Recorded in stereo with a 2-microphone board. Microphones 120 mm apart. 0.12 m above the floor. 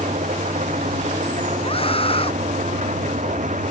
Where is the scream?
50° left (ahead or behind).